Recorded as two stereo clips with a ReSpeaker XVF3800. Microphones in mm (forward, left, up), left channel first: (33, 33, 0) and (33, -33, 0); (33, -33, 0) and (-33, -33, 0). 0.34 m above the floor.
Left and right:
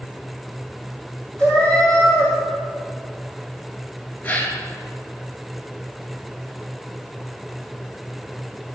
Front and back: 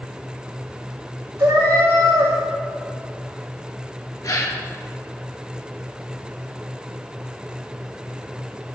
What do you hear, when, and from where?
1.4 s a cat meowing: 160° left, 2 m
4.2 s a gasp: 25° left, 1.0 m